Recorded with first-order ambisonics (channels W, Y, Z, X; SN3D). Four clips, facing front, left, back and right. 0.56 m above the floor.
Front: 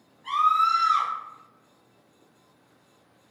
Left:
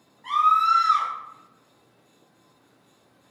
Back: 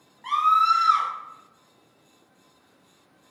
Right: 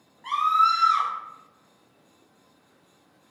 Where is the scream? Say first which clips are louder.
Left 2 dB, back 2 dB; 170° right, 1.4 m.